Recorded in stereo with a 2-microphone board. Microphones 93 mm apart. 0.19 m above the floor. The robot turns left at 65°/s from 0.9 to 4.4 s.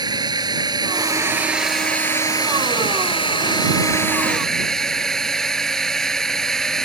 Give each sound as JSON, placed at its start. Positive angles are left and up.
{"t": 0.0, "sound": "a drone", "azimuth_deg": -125}